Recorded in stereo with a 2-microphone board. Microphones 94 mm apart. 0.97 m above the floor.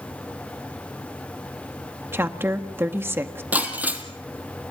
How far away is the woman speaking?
About 1.5 m.